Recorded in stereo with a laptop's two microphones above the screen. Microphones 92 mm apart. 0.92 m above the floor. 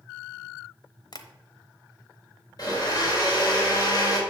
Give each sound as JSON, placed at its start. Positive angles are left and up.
{"t": 1.1, "sound": "tapping", "side_deg": 45, "distance_m": 0.9}
{"t": 2.6, "sound": "a blender", "side_deg": 45, "distance_m": 4.0}